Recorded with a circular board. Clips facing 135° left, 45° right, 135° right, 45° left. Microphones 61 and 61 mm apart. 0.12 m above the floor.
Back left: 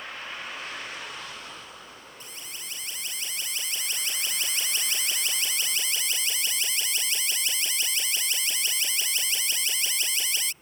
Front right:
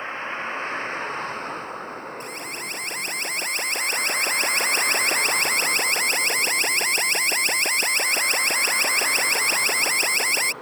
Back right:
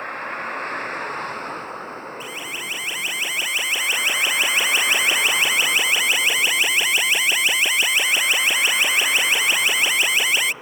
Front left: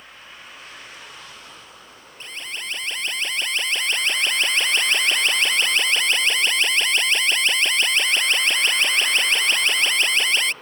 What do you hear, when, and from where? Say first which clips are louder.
0.0 s a vehicle: front right 8 dB, back right 15 dB; 100° right; by 10.6 s 60° right
2.2 s an alarm: front right 11 dB, back right 3 dB; 55° right